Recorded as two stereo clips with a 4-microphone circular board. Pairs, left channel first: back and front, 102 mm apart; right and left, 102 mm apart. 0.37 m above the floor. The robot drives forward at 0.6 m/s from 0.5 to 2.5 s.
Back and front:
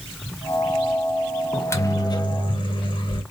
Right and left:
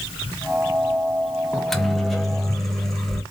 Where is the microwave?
170° right, 0.6 m; by 3.2 s straight behind, 1.0 m.